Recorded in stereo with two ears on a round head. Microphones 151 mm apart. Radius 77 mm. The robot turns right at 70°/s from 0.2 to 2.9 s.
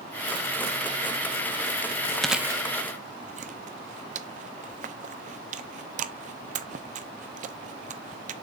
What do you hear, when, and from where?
2.2 s chewing: 5° left (ahead or behind), 0.7 m; by 8.3 s 45° right (ahead or behind), 0.7 m